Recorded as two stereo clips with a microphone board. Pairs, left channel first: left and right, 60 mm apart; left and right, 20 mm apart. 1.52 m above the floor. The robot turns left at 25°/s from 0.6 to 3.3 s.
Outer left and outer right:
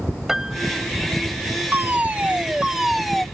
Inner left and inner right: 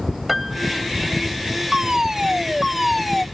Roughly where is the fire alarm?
Behind right.